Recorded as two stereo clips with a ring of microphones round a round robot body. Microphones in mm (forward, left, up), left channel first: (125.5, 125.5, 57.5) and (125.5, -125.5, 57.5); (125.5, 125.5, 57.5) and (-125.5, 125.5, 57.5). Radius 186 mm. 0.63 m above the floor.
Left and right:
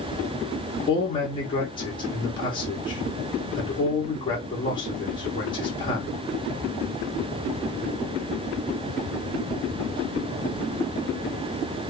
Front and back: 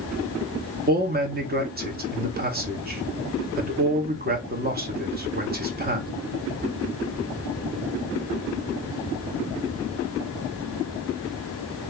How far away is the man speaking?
About 1.2 m.